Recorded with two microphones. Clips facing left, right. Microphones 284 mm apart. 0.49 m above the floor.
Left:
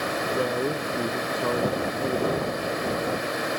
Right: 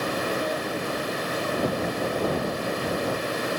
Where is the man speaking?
60° left (ahead or behind).